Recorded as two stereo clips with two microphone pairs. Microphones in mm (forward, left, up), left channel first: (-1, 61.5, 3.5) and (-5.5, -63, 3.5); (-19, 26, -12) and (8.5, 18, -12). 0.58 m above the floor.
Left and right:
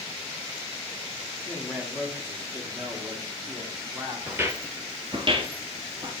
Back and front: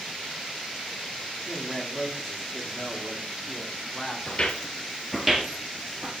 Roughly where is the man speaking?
Ahead.